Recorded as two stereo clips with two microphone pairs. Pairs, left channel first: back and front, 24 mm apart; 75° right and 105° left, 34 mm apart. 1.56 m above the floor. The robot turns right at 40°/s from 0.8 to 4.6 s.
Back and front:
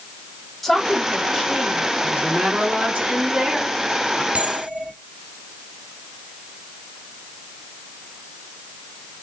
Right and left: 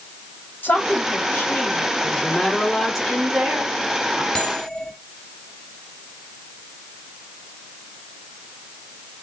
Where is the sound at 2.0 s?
10° right, 4.5 m; by 4.2 s 80° left, 4.5 m.